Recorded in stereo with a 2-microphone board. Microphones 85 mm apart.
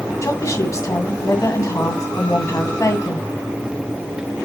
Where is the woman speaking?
40° left (ahead or behind), 1.9 m.